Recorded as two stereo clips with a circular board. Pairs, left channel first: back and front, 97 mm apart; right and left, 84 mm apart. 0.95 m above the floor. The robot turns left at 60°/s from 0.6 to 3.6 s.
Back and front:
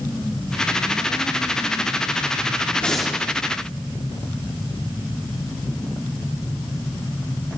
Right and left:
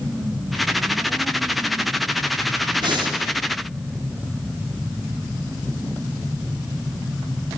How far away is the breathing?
About 2.5 m.